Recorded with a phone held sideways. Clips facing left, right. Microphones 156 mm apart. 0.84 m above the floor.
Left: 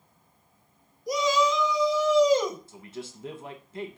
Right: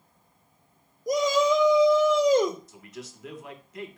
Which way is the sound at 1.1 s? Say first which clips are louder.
Right 2 dB; 45° right (ahead or behind).